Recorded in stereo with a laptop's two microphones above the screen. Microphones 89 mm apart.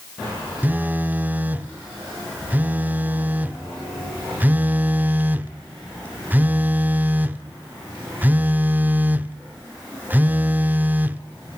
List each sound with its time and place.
0.6 s a phone buzzing: 20° right (ahead or behind), 0.7 m